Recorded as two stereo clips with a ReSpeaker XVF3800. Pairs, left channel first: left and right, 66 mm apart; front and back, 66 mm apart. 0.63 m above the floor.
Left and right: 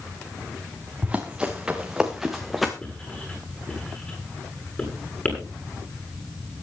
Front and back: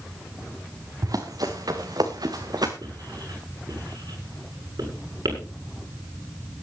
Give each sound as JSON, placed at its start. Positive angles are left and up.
{"t": 1.0, "sound": "running footsteps", "azimuth_deg": -160, "distance_m": 3.0}
{"t": 2.8, "sound": "writing", "azimuth_deg": 160, "distance_m": 8.5}